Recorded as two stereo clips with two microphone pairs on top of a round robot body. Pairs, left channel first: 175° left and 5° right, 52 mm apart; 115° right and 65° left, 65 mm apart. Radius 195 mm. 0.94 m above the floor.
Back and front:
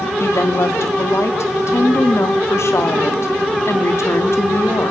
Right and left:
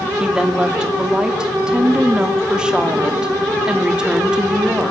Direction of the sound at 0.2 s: 145° left.